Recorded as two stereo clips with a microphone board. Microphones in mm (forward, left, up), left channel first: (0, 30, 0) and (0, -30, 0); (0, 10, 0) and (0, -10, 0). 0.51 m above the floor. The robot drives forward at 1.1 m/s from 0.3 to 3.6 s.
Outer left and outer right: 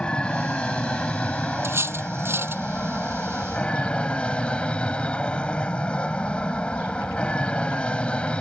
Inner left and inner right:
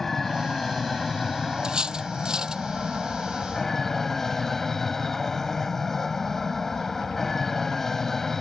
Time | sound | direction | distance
0.0 | an aircraft | 15° left (ahead or behind) | ?
1.6 | cutlery clinking | 45° right (ahead or behind) | ?